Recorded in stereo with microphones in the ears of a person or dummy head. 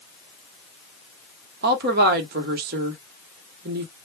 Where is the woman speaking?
45° right (ahead or behind), 0.9 m.